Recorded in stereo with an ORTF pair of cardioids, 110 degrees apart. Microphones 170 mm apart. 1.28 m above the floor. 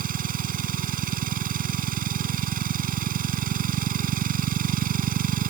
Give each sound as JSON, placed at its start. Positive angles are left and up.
{"t": 0.0, "sound": "a machine running", "azimuth_deg": -55}